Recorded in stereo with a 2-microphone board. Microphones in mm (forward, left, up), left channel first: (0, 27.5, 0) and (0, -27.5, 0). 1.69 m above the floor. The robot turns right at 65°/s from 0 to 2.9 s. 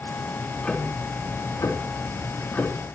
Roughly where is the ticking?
Ahead.